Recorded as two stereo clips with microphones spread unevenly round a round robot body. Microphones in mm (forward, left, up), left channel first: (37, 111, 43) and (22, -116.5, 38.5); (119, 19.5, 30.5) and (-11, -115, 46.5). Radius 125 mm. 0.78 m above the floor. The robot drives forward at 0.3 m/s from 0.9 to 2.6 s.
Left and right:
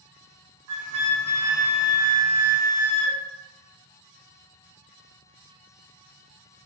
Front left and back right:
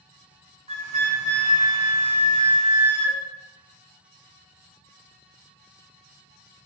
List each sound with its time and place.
0.7 s a flute: 95° right, 0.6 m; by 3.2 s 140° right, 0.8 m